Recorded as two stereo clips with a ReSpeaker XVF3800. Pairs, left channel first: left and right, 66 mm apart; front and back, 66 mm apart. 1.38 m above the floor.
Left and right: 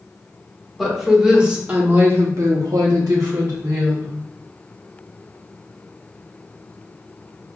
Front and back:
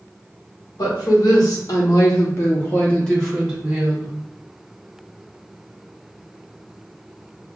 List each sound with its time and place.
0.8 s a woman speaking: straight ahead, 1.5 m; by 4.1 s 105° right, 1.5 m